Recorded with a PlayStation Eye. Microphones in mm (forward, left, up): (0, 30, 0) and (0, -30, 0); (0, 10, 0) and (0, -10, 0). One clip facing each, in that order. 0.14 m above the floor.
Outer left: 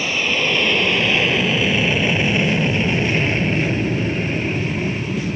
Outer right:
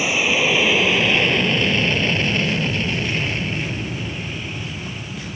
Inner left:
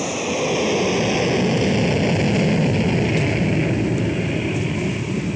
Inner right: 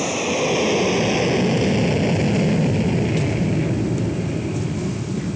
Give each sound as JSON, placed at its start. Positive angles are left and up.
{"t": 0.0, "sound": "an aircraft", "side_deg": -10}